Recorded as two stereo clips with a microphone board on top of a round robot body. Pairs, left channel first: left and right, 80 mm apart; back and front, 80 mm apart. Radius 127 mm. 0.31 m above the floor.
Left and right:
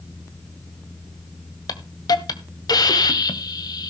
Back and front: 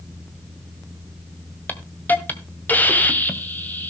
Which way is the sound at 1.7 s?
115° left.